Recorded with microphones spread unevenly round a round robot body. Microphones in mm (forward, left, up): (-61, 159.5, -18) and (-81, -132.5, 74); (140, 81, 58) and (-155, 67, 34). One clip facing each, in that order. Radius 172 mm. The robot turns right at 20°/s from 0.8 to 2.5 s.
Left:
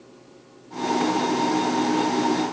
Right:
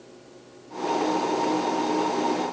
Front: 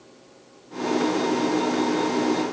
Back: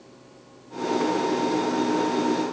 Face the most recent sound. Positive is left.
No sound to turn to.